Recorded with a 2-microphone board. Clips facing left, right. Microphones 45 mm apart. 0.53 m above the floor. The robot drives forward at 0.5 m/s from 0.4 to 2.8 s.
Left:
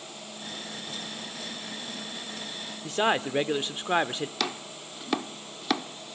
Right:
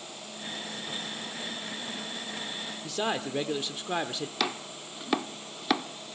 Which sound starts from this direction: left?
A man speaking, at 2.8 s.